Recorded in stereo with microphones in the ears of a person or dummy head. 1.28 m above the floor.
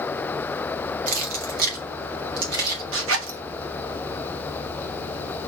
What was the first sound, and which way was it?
Keys jangling, 55° right (ahead or behind).